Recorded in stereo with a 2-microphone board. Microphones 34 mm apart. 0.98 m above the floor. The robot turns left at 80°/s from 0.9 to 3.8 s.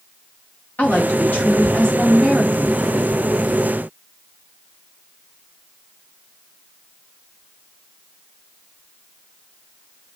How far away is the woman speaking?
About 1.6 m.